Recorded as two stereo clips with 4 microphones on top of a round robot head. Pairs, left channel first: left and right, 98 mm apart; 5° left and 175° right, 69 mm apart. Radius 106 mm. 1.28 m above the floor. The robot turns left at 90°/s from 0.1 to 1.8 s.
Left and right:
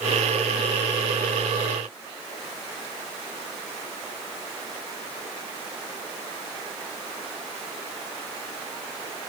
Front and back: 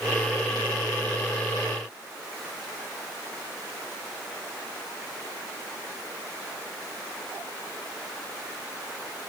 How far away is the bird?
No bird in this recording.